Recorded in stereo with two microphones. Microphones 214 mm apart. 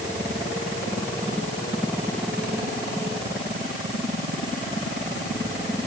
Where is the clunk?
No clunk in this recording.